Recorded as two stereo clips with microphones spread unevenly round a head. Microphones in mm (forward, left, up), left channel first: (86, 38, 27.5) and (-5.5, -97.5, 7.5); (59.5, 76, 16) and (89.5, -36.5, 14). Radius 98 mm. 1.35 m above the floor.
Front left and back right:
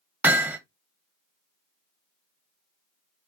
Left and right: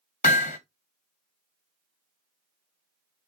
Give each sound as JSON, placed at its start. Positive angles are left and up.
{"t": 0.2, "sound": "hammering", "azimuth_deg": 155, "distance_m": 0.7}